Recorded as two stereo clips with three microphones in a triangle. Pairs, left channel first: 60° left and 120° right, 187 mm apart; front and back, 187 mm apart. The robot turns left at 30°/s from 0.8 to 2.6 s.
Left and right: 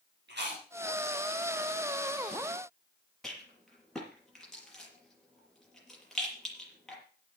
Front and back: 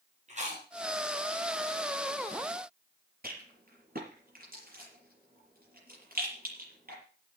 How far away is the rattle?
About 6 m.